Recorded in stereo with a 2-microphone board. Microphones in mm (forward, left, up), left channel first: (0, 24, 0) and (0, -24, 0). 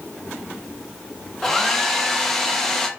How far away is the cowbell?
No cowbell in this recording.